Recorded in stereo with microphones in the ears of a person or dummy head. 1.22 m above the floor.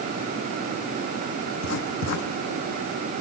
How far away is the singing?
I don't hear singing.